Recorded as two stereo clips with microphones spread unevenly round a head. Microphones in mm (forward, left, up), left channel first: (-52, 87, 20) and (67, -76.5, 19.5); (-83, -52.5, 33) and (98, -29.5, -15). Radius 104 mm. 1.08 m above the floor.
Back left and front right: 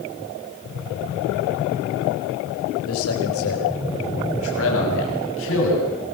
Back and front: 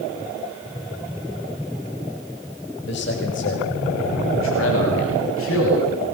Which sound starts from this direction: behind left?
A man speaking, at 2.9 s.